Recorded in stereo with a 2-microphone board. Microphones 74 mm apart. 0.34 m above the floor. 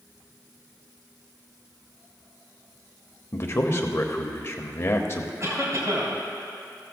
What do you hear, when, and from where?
3.3 s a man speaking: 40° left (ahead or behind), 1.0 m
5.4 s a cough: 45° right (ahead or behind), 3 m